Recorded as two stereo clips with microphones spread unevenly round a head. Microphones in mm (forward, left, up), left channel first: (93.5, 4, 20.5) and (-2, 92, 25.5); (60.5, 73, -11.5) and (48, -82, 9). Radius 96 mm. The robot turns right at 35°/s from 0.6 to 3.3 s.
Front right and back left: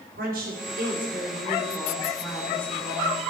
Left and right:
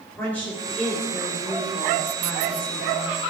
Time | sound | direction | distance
0.2 | a woman speaking | 165° left | 4 m